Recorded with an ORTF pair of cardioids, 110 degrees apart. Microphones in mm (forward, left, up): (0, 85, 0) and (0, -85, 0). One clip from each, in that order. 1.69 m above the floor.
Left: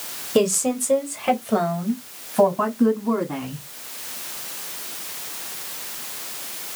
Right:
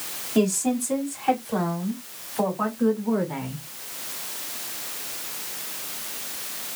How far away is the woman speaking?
About 2.5 m.